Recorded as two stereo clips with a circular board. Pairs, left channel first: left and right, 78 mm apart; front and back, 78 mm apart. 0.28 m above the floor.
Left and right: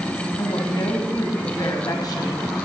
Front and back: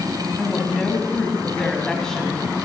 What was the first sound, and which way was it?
A woman speaking, 80° left.